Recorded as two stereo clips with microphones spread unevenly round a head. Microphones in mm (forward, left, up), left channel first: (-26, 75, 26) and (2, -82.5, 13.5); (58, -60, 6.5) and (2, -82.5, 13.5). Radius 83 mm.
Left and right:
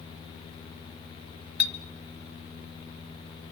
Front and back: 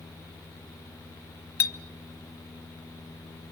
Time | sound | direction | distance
1.6 | a clink | 5° left | 0.9 m